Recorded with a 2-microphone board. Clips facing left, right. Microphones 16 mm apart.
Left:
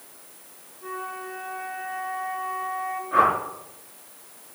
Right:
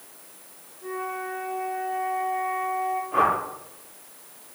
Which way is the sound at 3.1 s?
45° left (ahead or behind).